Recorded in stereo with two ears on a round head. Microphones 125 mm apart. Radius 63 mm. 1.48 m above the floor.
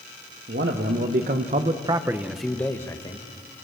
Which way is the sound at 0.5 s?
85° right.